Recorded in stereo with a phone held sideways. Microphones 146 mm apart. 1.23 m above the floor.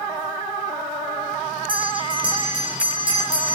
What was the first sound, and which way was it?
A bell, 35° right (ahead or behind).